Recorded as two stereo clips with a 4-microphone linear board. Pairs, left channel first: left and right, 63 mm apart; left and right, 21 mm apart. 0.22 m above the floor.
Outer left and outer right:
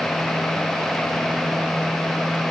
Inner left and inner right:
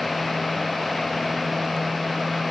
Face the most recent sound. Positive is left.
No sound to turn to.